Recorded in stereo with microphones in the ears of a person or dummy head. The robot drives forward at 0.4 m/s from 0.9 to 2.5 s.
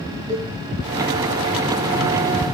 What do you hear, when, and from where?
0.3 s a cowbell: 15° right (ahead or behind), 3 m